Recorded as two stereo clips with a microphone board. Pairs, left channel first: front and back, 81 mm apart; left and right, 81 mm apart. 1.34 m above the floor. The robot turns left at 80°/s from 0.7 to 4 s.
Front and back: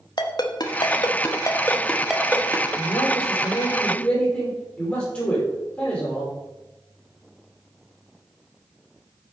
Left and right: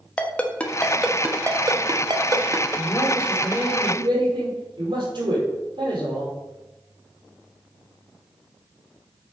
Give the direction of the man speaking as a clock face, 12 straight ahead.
11 o'clock.